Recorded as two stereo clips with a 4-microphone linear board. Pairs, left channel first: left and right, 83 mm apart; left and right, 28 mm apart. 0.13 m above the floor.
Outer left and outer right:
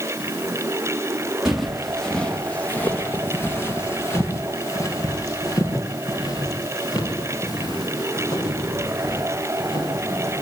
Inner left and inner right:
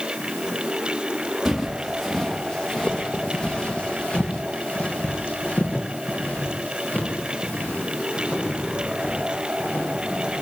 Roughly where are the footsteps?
Centre.